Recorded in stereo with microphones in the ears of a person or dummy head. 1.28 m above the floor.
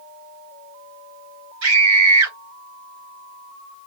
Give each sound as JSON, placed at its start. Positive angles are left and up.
{"t": 1.6, "sound": "a scream", "side_deg": -80, "distance_m": 3.5}